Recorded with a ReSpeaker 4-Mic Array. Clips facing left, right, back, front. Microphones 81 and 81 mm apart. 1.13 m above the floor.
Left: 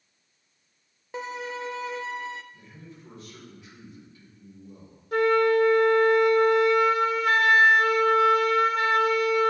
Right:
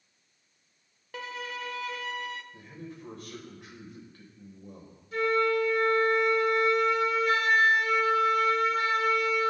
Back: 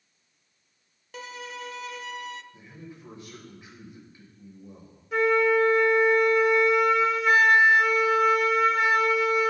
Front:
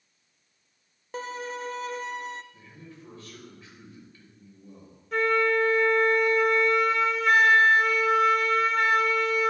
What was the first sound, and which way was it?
A violin, 35° left.